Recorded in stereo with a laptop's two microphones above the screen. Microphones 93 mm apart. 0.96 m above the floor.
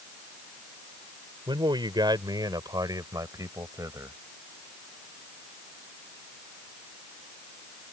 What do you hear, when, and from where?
1.5 s a man speaking: 60° right (ahead or behind); by 4.2 s 35° right (ahead or behind)